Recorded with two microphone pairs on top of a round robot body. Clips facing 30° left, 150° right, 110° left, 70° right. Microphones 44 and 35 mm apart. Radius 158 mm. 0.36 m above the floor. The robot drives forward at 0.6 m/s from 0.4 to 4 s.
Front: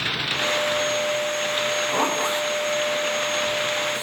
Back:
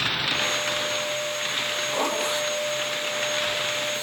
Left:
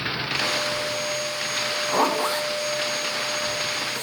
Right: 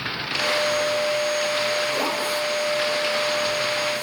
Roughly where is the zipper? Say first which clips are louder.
Front 3 dB, left 2 dB; left.